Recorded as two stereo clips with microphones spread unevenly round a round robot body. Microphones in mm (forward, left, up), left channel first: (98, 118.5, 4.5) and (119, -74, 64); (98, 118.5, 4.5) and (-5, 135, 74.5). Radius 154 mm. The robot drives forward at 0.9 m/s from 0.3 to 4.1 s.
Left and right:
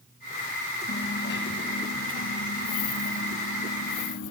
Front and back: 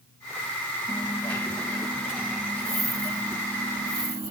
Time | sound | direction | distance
0.9 | a dropped coin | 55° left | 2 m